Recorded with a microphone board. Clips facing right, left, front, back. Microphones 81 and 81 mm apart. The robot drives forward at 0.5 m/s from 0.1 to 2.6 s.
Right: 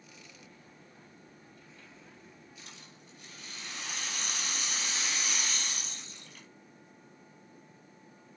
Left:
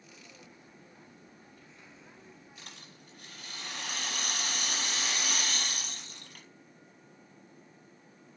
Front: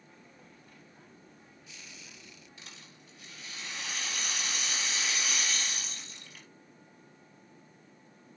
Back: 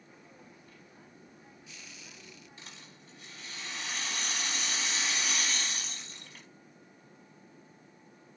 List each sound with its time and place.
2.6 s a rattle: 120° left, 5.5 m